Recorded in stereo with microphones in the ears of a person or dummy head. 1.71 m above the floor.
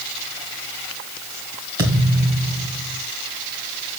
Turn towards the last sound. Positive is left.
turn(degrees=-15)  # may be behind; listen again after turning